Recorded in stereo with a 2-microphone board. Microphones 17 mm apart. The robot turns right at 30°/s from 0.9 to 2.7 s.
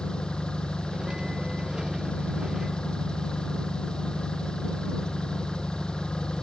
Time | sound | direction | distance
0.0 | an engine running | 65° left | ?